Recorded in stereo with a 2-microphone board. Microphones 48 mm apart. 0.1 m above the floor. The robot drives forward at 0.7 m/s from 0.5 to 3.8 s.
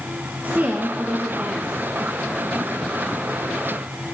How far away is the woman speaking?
About 2 m.